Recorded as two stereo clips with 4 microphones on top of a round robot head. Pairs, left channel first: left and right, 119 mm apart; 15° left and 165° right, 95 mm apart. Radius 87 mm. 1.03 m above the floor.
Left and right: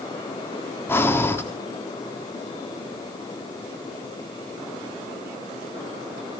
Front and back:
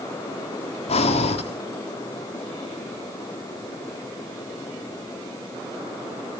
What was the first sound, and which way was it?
Breathing, 20° left.